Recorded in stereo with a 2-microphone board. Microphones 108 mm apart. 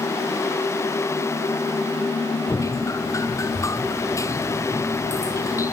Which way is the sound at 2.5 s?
30° left (ahead or behind).